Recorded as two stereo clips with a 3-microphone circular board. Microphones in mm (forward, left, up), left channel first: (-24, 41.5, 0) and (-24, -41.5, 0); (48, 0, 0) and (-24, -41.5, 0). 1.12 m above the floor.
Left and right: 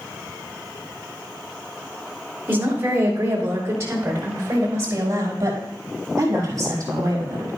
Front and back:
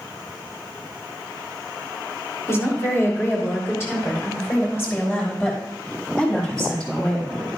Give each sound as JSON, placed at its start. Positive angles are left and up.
{"t": 2.5, "sound": "a woman speaking", "azimuth_deg": -30, "distance_m": 3.0}